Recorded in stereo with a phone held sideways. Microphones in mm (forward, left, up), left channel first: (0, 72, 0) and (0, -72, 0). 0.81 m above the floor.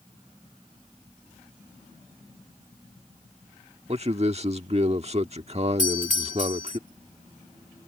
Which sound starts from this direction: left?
A doorbell, at 5.8 s.